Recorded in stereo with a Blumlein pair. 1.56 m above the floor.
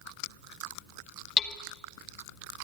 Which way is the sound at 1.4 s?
20° left.